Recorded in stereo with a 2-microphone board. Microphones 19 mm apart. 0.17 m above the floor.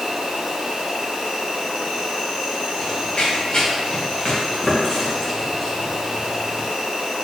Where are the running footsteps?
65° left (ahead or behind), 1.5 m; by 6.7 s 10° left (ahead or behind), 2.5 m.